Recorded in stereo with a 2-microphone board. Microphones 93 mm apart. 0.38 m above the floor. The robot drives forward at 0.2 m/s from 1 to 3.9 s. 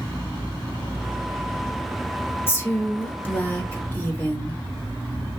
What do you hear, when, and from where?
2.5 s a woman speaking: 25° left (ahead or behind), 0.8 m; by 4.6 s 20° left (ahead or behind), 1.0 m